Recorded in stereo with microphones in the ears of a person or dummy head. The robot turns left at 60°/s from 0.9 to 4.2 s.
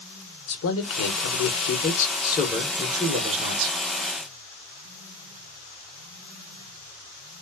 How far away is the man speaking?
About 1.2 m.